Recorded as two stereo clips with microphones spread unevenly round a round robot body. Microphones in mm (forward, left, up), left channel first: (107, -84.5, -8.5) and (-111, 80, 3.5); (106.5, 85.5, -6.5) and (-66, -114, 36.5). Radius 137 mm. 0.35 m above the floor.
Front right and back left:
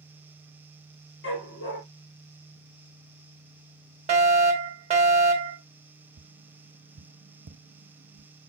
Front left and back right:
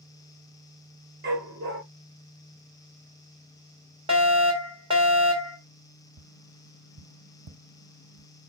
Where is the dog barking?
85° right, 3 m.